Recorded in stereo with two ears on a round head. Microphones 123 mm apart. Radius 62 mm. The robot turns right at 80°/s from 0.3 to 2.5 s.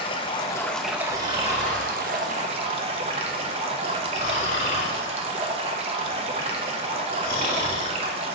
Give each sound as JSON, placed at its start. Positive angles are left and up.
{"t": 0.0, "sound": "running water", "azimuth_deg": 135, "distance_m": 1.0}
{"t": 1.1, "sound": "snoring", "side_deg": -50, "distance_m": 3.5}